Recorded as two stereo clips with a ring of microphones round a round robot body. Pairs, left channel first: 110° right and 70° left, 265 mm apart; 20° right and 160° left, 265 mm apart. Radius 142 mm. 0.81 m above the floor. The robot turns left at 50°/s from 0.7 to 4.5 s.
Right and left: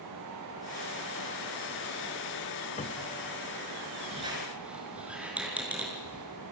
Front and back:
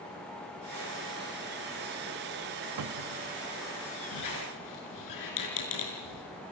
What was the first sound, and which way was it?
A cupboard door, 175° right.